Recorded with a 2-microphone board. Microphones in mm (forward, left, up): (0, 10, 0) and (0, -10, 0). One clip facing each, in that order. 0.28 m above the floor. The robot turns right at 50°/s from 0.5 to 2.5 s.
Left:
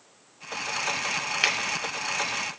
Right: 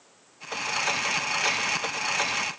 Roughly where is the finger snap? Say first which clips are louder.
Left 4 dB; left.